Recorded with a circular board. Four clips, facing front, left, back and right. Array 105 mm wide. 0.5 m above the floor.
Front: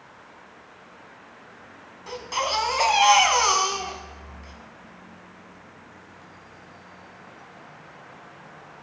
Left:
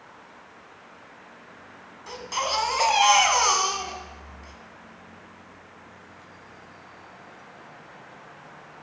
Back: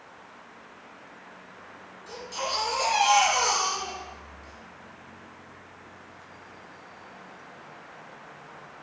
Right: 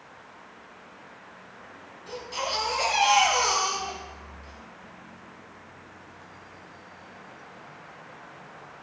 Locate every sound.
2.1 s a baby crying: 35° left, 1.5 m